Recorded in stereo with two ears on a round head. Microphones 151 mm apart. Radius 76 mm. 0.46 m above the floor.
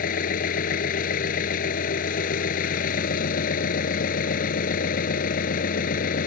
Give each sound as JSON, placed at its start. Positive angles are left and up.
{"t": 0.0, "sound": "an engine running", "side_deg": 55}